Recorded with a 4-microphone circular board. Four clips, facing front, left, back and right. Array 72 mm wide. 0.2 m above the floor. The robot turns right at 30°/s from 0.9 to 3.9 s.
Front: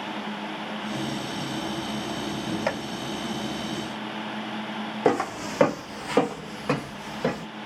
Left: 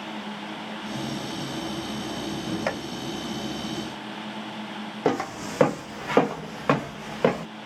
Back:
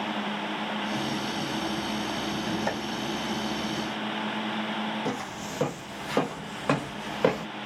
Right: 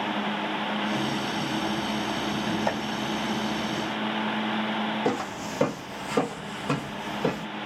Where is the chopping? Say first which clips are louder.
Even, front 5 dB; 45° left, 1.6 m; by 2.8 s 50° left, 1.6 m.